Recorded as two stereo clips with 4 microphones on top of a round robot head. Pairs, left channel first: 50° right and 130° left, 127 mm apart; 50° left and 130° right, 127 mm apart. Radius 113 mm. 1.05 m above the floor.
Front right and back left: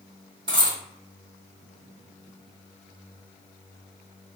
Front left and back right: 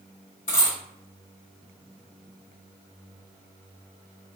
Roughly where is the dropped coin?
Left.